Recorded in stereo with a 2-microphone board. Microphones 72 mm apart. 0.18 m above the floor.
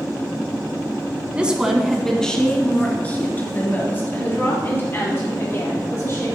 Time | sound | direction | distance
1.4 | a woman speaking | 15° right (ahead or behind) | 1.6 m